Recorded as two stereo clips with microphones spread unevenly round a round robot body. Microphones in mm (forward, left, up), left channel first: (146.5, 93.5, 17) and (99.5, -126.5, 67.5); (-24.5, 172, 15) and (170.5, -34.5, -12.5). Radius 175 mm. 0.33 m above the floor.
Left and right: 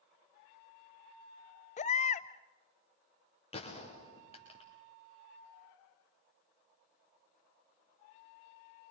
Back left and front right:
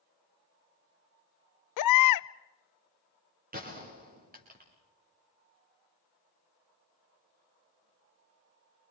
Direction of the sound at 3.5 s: 15° left.